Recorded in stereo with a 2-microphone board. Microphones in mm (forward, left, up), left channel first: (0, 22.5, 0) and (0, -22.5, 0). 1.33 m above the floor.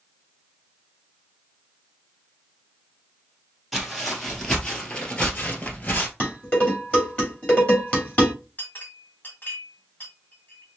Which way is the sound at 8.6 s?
40° left (ahead or behind).